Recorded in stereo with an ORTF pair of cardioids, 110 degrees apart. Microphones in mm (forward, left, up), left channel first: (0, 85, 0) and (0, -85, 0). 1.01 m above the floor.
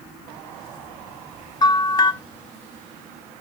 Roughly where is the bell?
Ahead left.